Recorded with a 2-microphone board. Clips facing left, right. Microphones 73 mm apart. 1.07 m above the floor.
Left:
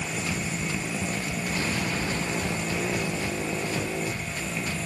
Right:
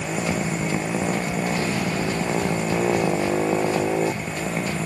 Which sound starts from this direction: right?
A motorcycle, at 0.0 s.